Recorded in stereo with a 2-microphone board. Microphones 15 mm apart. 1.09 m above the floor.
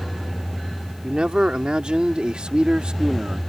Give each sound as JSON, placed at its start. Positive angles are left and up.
{"t": 1.0, "sound": "a man speaking", "side_deg": -75}